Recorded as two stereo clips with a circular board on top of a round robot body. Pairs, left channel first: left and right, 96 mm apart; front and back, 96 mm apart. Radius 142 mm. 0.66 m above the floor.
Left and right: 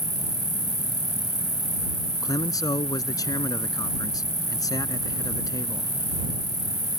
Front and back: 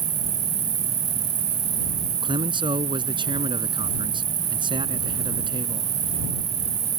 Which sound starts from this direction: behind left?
A man speaking, at 2.2 s.